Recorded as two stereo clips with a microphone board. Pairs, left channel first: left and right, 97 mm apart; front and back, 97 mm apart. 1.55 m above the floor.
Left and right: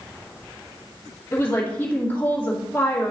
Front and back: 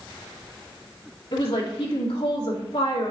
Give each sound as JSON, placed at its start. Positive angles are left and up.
{"t": 1.3, "sound": "a woman speaking", "azimuth_deg": 20, "distance_m": 2.5}